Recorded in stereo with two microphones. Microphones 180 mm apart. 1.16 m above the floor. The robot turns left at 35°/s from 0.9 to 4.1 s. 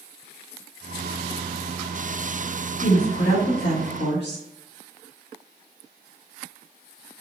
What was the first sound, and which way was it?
A woman speaking, 135° left.